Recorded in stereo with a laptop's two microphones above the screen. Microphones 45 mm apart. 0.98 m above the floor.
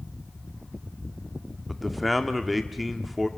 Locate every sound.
1.7 s a man speaking: centre (ahead or behind), 1.8 m